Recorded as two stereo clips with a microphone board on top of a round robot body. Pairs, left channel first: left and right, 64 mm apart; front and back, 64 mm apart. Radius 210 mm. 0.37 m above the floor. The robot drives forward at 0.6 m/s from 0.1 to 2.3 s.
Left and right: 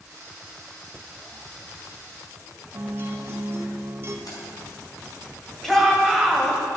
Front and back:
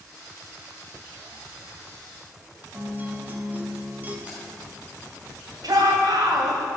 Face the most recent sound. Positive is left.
turn(degrees=175)